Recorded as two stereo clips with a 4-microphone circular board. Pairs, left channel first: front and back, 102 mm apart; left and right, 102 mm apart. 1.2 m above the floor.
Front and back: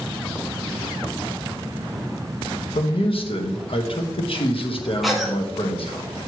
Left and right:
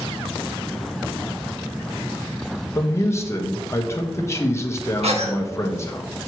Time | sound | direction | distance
2.8 | a man speaking | 25° left | 1.2 m
5.0 | a cough | 90° right | 1.9 m